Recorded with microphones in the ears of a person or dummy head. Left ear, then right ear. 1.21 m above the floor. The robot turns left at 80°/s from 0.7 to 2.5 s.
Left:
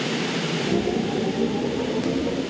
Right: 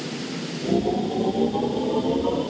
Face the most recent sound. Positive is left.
No sound to turn to.